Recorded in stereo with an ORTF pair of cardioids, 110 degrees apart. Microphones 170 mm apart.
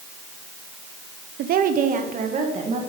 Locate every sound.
1.4 s a woman speaking: 65° right, 0.8 m; by 2.8 s 40° right, 2 m